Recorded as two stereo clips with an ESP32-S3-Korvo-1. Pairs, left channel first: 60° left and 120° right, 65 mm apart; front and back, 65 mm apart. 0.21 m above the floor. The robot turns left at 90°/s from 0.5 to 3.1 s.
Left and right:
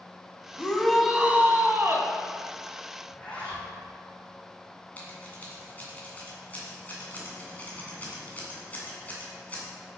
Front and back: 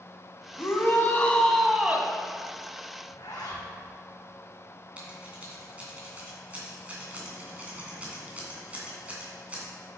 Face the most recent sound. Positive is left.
turn(degrees=120)